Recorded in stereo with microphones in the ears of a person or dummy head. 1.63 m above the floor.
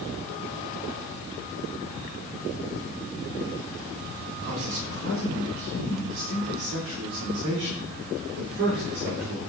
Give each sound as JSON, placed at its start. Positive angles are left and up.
{"t": 4.4, "sound": "a man speaking", "side_deg": -60, "distance_m": 4.0}